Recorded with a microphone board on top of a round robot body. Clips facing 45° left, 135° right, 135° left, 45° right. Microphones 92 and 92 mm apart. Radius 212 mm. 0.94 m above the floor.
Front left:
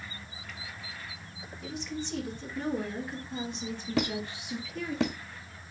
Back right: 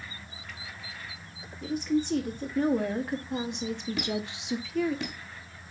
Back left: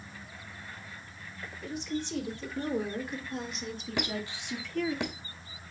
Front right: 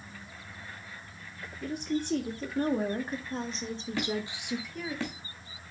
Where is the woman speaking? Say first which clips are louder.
Back right 10 dB, front right 3 dB; 90° right, 2.5 m; by 5.0 s 130° right, 1.6 m.